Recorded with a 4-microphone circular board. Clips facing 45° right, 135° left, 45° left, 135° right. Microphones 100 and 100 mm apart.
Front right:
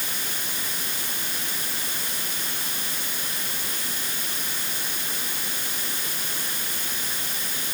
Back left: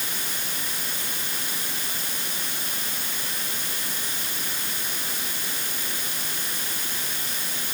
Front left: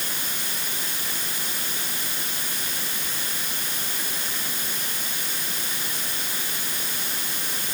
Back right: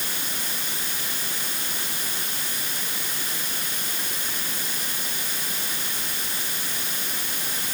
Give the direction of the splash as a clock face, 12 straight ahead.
I don't hear a splash.